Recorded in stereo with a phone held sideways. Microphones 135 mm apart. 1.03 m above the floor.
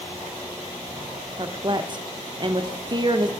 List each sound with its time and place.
1.4 s a woman speaking: 35° right (ahead or behind), 0.6 m